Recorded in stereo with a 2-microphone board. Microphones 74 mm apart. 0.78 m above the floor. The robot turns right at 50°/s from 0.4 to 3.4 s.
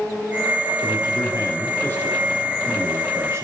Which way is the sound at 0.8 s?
95° left.